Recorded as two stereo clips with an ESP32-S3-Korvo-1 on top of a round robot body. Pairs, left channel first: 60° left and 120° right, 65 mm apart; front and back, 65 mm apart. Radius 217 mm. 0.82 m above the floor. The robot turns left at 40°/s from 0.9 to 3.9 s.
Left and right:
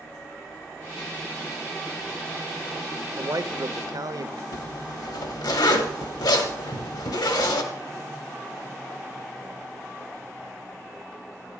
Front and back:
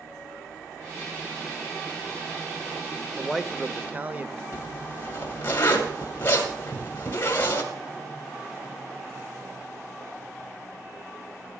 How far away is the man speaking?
About 1.1 m.